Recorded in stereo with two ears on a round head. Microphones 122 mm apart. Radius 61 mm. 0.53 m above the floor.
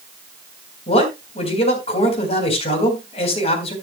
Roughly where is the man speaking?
Left.